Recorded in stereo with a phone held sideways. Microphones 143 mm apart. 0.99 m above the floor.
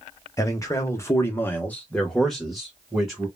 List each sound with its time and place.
0.4 s a man speaking: 20° left (ahead or behind), 0.9 m; by 3.3 s 5° right (ahead or behind), 1.3 m